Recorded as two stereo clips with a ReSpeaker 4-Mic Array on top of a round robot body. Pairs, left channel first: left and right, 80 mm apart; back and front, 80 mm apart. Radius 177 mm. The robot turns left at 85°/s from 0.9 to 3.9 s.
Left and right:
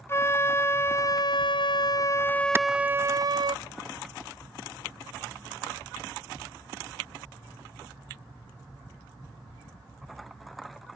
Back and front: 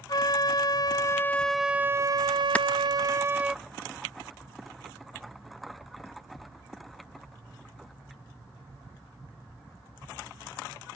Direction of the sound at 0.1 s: 145° left.